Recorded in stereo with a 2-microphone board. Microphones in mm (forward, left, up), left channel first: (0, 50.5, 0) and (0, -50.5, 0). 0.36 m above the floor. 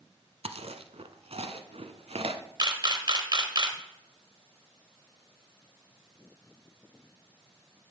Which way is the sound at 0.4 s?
85° right.